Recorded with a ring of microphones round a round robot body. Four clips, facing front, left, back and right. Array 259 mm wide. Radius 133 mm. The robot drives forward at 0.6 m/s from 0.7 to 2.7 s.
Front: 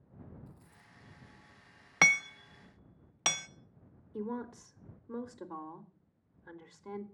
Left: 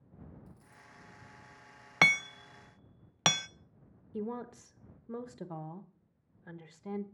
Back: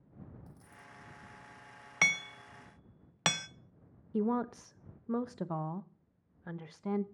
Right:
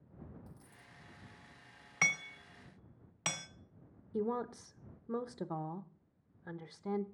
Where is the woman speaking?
170° right, 0.7 m.